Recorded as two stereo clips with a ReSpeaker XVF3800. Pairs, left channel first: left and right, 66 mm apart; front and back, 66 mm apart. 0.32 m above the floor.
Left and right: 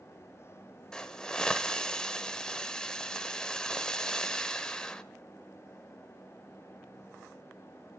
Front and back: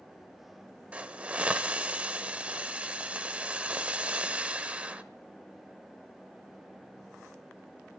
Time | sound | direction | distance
0.9 | a hiss | 150° left | 0.9 m